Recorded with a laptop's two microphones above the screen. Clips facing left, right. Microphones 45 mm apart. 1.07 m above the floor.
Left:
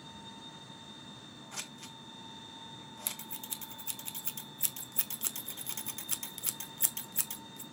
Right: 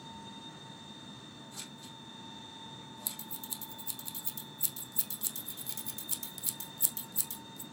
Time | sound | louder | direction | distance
1.5 | scissors | left 2 dB | 65° left (ahead or behind) | 1.6 m
3.1 | scissors | left 1 dB | 55° left (ahead or behind) | 1.0 m